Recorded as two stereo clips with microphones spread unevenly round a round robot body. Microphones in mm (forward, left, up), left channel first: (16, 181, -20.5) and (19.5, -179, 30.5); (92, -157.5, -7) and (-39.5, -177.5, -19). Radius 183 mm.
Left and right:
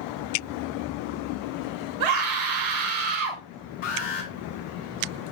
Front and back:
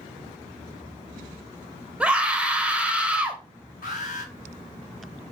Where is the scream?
90° right, 2.5 m.